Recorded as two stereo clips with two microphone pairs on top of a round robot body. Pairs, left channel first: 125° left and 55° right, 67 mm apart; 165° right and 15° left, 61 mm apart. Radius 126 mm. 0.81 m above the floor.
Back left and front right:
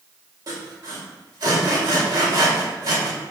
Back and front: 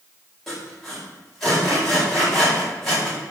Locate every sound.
0.5 s sawing: 80° right, 4.5 m